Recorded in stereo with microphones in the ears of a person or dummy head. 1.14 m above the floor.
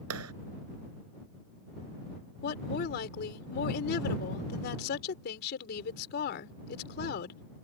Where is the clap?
90° right.